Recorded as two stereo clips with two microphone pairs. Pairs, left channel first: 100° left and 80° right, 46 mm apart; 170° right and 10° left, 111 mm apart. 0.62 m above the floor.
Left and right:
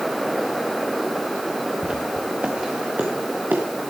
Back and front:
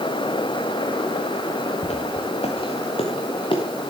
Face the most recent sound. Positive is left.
turn(degrees=-130)